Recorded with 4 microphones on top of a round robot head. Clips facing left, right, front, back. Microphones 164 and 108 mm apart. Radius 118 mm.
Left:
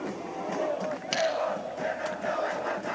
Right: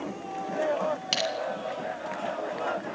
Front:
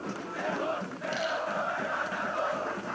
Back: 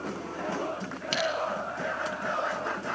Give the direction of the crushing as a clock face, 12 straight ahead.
5 o'clock.